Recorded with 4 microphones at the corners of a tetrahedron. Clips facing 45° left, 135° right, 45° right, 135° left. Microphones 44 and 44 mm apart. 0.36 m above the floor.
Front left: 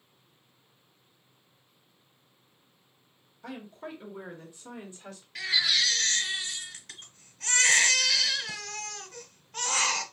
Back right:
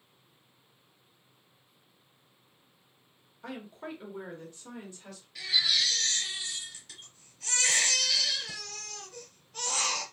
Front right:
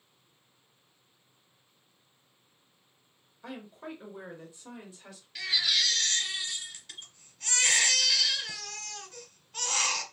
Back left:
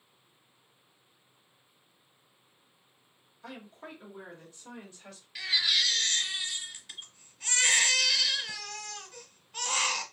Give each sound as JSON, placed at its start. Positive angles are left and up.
{"t": 3.4, "sound": "a woman speaking", "azimuth_deg": -110, "distance_m": 1.0}
{"t": 5.3, "sound": "a baby crying", "azimuth_deg": 55, "distance_m": 1.0}